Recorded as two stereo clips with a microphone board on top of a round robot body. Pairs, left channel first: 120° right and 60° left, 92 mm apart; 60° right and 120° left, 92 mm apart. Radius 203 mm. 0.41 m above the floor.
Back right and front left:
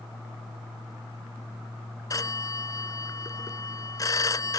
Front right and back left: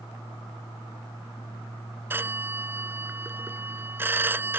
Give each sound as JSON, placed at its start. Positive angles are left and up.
{"t": 2.1, "sound": "a phone ringing", "azimuth_deg": -170}